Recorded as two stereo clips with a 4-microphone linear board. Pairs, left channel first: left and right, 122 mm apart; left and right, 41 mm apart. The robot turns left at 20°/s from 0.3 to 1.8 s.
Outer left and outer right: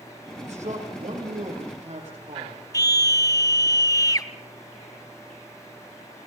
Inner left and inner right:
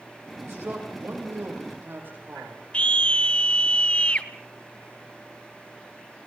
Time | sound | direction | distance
0.4 | a man speaking | 75° right (ahead or behind) | 8.5 m
2.7 | a scream | 30° left (ahead or behind) | 1.1 m